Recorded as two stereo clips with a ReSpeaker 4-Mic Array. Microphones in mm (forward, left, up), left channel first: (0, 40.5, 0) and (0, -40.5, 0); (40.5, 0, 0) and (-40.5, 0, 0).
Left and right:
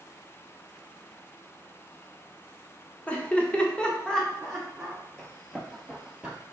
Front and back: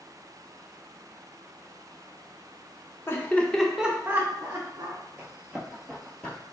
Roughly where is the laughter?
Ahead left.